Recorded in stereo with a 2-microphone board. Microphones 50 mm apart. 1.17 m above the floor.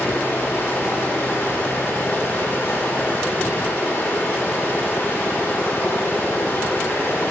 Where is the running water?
35° left (ahead or behind), 3 m.